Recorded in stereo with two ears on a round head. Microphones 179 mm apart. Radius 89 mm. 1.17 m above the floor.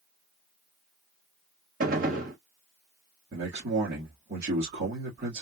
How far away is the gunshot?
About 1.4 m.